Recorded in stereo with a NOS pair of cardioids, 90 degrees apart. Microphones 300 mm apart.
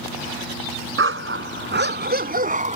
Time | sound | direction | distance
1.0 | a dog barking | 40° right | ?